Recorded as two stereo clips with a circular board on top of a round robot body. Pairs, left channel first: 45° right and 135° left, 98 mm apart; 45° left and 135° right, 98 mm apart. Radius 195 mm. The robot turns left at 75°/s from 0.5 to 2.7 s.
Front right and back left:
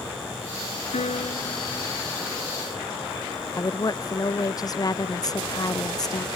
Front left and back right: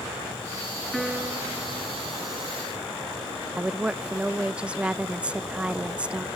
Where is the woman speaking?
60° right.